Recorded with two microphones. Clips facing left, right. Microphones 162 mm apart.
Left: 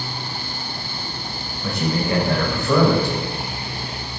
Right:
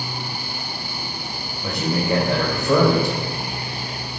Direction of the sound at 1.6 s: 20° right (ahead or behind).